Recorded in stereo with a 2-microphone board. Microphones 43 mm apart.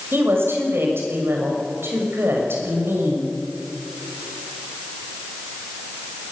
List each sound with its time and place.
0.1 s a woman speaking: 65° right (ahead or behind), 6 m